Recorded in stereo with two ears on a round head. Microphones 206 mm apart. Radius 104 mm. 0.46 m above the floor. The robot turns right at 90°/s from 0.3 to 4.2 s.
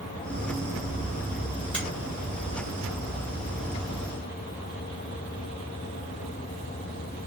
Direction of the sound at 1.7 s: 5° left (ahead or behind).